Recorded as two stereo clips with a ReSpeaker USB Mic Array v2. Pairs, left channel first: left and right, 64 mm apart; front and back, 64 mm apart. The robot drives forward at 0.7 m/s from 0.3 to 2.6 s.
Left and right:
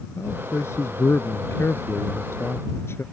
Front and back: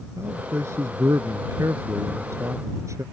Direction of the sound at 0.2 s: 135° left.